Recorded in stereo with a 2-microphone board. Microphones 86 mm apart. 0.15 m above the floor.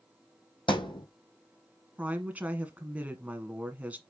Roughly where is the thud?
Left.